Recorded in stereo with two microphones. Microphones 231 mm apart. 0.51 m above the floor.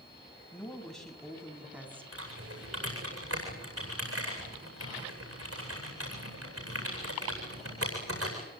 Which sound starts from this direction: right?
Typing on a keyboard, at 2.1 s.